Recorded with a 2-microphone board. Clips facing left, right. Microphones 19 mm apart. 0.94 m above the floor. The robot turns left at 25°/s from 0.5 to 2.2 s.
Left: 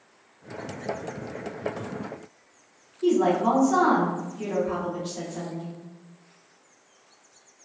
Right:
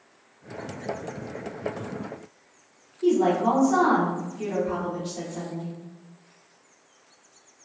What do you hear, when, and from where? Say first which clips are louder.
3.0 s a woman speaking: even; 5° left (ahead or behind), 0.9 m